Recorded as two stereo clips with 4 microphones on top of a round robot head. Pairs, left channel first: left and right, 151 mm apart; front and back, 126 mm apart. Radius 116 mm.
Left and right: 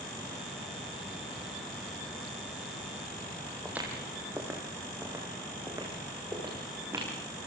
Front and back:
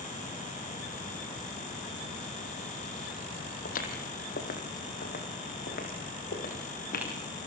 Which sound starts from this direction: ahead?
Footsteps, at 3.6 s.